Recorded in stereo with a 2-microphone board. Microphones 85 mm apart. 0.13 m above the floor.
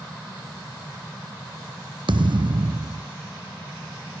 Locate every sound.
2.1 s a thud: 70° right (ahead or behind)